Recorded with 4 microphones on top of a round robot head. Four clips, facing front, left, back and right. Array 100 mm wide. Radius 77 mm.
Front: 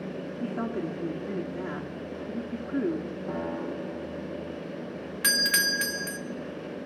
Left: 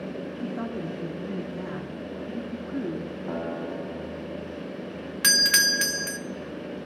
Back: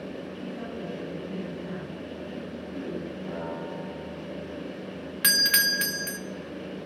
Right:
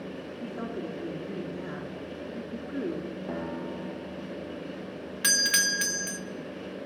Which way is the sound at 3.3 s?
75° left.